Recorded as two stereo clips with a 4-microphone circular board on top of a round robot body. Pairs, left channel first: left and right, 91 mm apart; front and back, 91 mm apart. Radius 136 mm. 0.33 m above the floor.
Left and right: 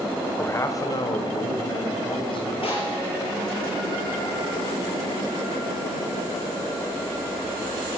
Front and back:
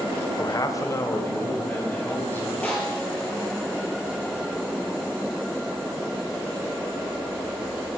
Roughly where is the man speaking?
Ahead left.